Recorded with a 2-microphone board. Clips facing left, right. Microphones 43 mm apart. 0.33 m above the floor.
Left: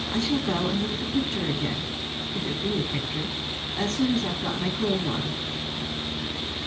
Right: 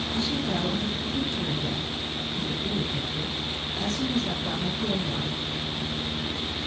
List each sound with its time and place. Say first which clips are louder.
0.1 s a woman speaking: left 4 dB; 55° left (ahead or behind), 7 m